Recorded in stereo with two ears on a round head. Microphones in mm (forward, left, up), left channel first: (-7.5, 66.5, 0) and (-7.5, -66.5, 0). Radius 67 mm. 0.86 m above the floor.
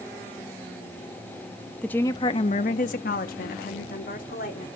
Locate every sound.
1.8 s a woman speaking: 5° left (ahead or behind), 0.9 m; by 4.7 s 60° left (ahead or behind), 2.5 m